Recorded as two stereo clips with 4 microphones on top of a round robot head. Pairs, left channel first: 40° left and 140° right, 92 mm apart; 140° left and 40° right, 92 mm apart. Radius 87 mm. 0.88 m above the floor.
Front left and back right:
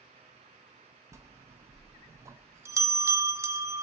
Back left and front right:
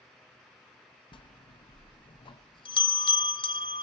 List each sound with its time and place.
1.1 s a bell: 165° left, 0.6 m